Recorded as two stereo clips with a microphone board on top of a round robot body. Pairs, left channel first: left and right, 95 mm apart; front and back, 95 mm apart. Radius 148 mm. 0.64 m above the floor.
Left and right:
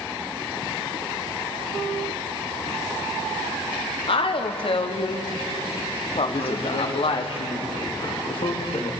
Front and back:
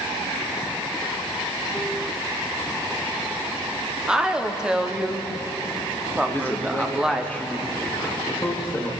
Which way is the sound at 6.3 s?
70° left.